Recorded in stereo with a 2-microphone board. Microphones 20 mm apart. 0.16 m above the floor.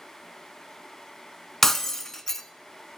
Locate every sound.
1.6 s breaking glass: 20° left (ahead or behind), 0.5 m